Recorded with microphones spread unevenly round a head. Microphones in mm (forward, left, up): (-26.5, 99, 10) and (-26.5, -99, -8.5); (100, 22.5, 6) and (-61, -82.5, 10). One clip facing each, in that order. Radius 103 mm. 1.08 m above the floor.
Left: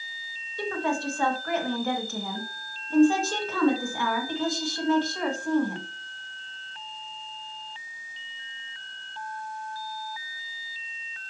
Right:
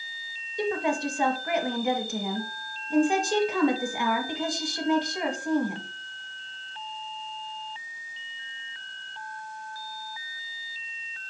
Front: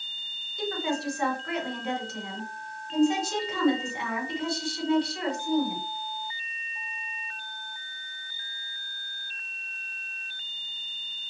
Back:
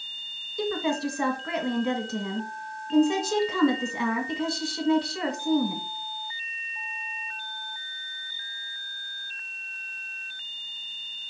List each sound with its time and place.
0.6 s a woman speaking: 165° right, 1.8 m